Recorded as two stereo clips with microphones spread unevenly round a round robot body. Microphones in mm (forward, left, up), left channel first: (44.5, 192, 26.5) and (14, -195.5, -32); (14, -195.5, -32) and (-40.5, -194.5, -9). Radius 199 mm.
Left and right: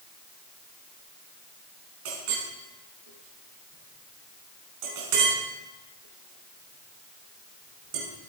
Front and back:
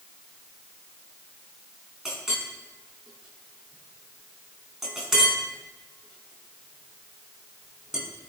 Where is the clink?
100° right, 4.5 m.